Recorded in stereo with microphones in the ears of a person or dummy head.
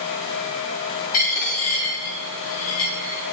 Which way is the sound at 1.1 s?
45° left (ahead or behind).